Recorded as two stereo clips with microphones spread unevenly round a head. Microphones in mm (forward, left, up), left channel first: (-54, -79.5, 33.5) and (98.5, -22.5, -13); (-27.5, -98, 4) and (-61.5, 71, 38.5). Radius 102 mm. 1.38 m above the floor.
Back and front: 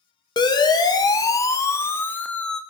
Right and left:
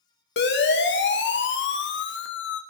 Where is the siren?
95° right, 2 m; by 2.6 s 70° right, 1.1 m.